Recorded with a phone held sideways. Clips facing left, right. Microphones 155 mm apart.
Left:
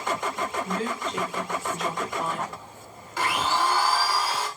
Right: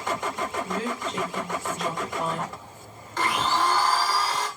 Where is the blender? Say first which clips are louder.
Right 1 dB; 5° left (ahead or behind), 1.6 m.